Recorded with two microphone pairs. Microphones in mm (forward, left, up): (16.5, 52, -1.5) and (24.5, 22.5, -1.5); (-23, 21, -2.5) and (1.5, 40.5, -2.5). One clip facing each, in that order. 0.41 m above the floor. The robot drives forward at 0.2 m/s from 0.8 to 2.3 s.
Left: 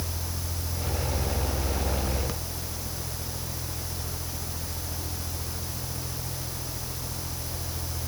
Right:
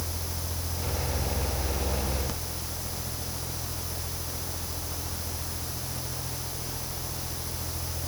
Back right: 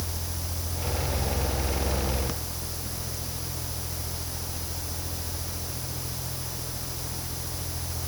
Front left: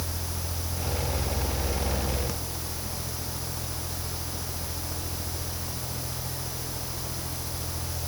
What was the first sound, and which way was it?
Only background noise.